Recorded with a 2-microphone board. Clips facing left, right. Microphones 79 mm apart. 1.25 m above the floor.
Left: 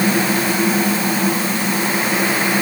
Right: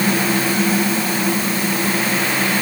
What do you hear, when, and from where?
Only background noise.